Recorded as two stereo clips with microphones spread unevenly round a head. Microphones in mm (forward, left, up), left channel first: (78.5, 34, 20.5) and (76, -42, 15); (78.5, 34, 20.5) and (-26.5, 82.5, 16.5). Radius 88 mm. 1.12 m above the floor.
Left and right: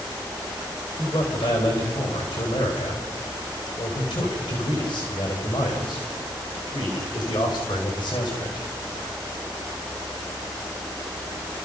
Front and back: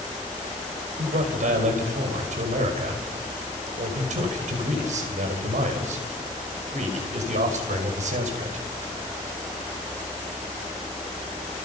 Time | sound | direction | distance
1.0 | a man speaking | 145° left | 5.5 m